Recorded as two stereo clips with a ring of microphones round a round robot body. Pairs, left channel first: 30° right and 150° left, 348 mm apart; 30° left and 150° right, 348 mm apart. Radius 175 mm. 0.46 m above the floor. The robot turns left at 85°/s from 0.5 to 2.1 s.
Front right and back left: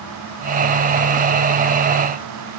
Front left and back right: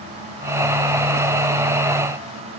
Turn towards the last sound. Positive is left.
No sound to turn to.